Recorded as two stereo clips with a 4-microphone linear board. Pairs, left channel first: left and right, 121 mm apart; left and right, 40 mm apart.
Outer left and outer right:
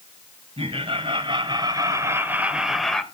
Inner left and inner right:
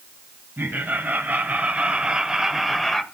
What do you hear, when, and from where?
0.6 s laughter: 50° right (ahead or behind), 2 m; by 3.0 s 5° left (ahead or behind), 1.5 m